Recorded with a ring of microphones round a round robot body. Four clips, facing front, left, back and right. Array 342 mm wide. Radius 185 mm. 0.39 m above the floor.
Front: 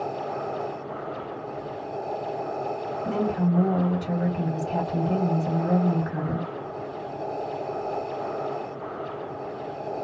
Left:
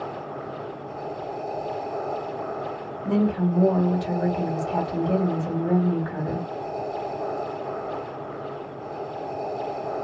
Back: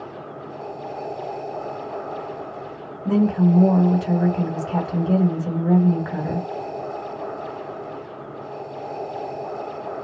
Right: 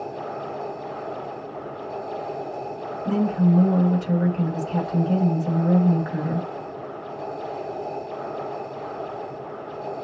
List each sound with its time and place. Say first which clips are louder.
3.0 s a woman speaking: right 2 dB, back 8 dB; 160° left, 1.9 m